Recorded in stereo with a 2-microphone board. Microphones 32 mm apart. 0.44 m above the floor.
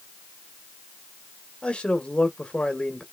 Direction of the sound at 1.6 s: 40° left (ahead or behind).